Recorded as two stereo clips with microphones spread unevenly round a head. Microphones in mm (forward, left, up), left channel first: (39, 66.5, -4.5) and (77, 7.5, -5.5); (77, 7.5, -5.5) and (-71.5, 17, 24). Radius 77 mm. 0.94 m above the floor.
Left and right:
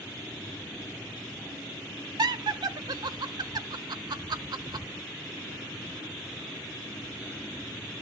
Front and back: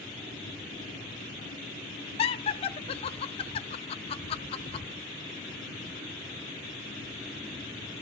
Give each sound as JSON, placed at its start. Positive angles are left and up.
{"t": 2.2, "sound": "laughter", "azimuth_deg": -50, "distance_m": 0.7}